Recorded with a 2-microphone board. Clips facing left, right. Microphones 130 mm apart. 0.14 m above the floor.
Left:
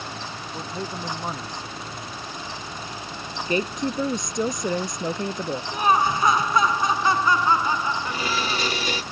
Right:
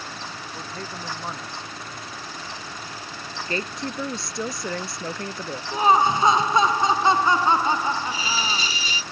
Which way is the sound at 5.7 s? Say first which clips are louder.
Right 3 dB; 25° right (ahead or behind).